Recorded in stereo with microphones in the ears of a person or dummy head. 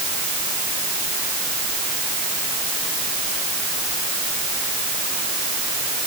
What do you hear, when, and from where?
Only background noise.